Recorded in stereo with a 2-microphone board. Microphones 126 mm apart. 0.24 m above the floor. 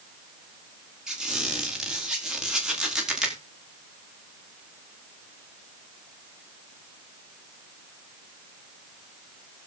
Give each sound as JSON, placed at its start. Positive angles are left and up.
{"t": 1.1, "sound": "a squeak", "side_deg": -5, "distance_m": 3.0}